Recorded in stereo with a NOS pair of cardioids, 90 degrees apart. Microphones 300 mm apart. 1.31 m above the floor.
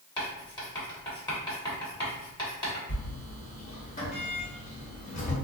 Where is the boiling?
No boiling in this recording.